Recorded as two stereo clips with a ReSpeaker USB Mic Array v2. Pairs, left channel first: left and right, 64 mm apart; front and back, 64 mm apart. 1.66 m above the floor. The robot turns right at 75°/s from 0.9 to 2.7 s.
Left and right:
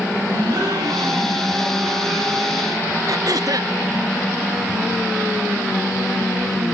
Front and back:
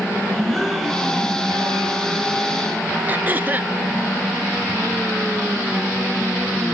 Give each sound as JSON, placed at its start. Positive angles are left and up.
{"t": 0.3, "sound": "a gasp", "azimuth_deg": -85, "distance_m": 5.5}
{"t": 3.1, "sound": "throat clearing", "azimuth_deg": -115, "distance_m": 0.9}